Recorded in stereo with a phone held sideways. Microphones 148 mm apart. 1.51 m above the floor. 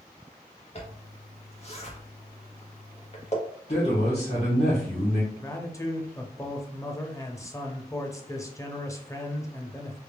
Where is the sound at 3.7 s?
40° left (ahead or behind), 1.4 m.